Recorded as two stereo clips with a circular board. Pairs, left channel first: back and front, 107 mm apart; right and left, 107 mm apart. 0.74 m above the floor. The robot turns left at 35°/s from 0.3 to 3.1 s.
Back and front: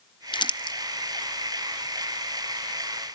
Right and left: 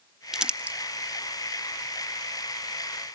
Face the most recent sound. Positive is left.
turn(degrees=75)